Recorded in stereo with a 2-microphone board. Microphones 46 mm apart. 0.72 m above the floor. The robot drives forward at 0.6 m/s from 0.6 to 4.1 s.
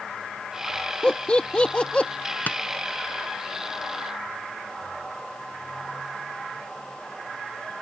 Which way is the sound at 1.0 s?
20° left (ahead or behind).